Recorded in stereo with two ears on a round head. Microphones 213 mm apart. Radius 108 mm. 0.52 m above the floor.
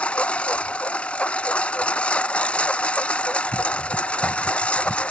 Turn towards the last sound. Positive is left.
turn(degrees=5)  # may be behind; listen again after turning